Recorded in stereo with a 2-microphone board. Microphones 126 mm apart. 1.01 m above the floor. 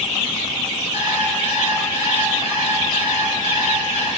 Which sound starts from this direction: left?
An alarm clock, at 0.9 s.